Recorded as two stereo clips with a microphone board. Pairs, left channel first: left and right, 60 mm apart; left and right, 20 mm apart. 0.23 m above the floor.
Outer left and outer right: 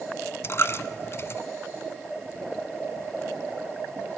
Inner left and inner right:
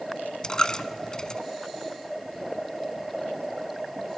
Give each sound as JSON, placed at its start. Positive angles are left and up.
{"t": 0.4, "sound": "a dropped coin", "side_deg": 45, "distance_m": 1.0}